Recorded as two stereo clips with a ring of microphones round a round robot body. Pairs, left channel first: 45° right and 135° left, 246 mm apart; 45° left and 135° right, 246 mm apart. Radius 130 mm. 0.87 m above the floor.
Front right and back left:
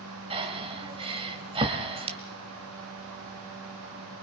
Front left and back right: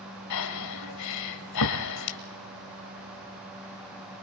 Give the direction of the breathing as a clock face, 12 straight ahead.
10 o'clock.